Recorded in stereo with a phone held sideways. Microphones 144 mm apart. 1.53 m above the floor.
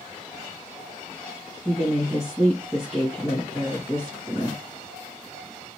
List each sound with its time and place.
1.6 s a woman speaking: 5° left (ahead or behind), 1.8 m